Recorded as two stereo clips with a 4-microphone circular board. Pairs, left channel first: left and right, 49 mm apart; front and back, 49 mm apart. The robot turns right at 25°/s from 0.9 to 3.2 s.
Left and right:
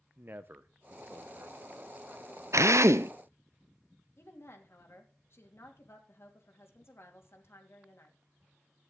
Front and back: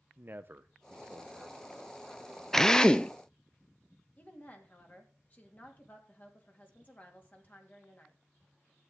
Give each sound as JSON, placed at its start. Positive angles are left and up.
{"t": 0.2, "sound": "a man speaking", "azimuth_deg": -135, "distance_m": 0.9}
{"t": 2.5, "sound": "a drill", "azimuth_deg": -80, "distance_m": 0.5}
{"t": 4.2, "sound": "a woman speaking", "azimuth_deg": 55, "distance_m": 2.5}